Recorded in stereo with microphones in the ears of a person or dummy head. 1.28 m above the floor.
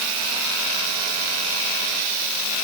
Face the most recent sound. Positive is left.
No sound to turn to.